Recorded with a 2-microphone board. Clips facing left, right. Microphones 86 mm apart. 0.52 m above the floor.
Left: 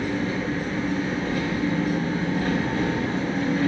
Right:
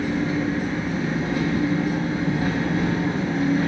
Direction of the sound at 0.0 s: 15° right (ahead or behind).